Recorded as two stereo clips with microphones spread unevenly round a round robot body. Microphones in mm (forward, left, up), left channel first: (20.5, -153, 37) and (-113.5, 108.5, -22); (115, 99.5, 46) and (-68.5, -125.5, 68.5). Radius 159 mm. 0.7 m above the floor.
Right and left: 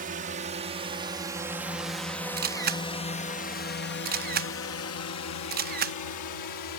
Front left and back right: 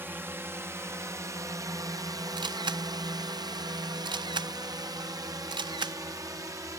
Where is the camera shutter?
155° left.